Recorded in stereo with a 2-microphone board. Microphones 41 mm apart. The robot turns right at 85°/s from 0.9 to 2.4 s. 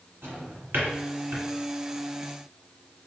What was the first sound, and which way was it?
A drawer, 75° right (ahead or behind).